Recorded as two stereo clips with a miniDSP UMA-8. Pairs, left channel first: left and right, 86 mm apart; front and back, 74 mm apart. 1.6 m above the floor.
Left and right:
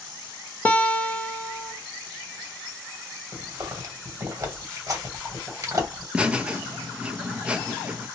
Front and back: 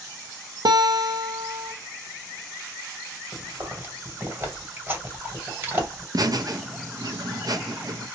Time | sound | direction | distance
0.7 | a guitar | 160° left | 0.5 m
3.3 | chewing | 125° right | 2.0 m
6.1 | laughter | 165° right | 0.6 m